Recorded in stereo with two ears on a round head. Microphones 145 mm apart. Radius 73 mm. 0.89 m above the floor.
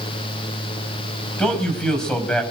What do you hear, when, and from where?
1.4 s a man speaking: 5° left (ahead or behind), 5.5 m